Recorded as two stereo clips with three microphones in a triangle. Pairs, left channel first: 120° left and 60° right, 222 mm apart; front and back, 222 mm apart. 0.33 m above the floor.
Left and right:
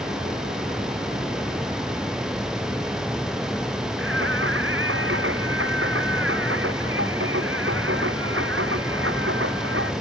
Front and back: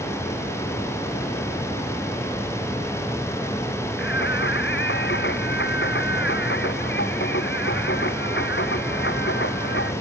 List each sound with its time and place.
4.0 s singing: 35° right